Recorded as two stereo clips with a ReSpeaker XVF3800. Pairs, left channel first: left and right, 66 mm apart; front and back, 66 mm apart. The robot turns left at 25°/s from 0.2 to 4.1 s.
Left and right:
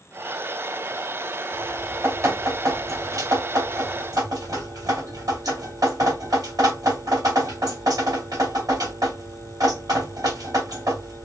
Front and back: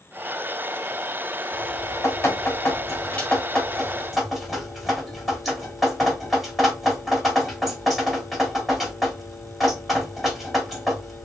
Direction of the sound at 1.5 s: 30° right.